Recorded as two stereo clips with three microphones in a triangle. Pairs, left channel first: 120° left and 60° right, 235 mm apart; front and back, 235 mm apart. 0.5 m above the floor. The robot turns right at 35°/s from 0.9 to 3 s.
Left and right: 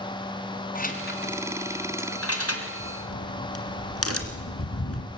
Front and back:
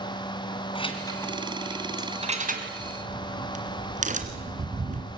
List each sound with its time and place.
0.8 s keys jangling: 70° left, 3 m; by 2.7 s 130° left, 3 m
2.8 s a crack: 115° left, 2.5 m; by 5.1 s 120° left, 2.5 m